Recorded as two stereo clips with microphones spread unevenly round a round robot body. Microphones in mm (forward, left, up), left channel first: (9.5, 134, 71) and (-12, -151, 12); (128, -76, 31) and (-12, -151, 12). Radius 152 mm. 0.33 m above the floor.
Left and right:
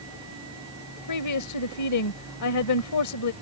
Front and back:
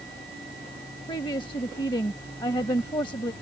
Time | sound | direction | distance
1.1 | a woman speaking | 95° left | ?